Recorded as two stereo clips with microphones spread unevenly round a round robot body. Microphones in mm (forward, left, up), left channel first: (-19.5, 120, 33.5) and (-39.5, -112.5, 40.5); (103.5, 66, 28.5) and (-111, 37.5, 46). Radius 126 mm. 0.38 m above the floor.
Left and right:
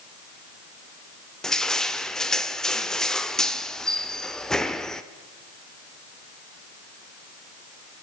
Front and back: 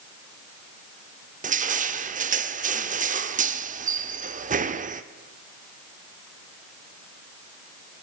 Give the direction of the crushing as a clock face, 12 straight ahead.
6 o'clock.